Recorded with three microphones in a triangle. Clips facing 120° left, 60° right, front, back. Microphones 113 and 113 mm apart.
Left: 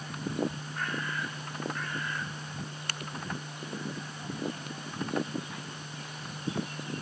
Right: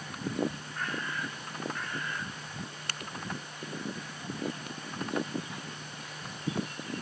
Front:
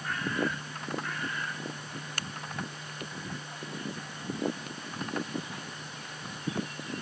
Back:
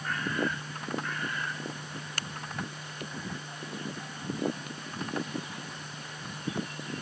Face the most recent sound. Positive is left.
No sound to turn to.